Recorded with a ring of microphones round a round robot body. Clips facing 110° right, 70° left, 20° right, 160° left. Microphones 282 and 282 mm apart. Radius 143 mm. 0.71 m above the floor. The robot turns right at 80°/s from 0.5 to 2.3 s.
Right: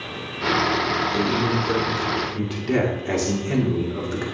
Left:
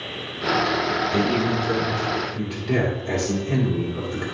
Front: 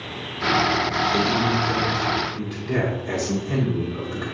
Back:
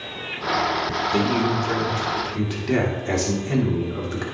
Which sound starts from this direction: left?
A man speaking, at 1.1 s.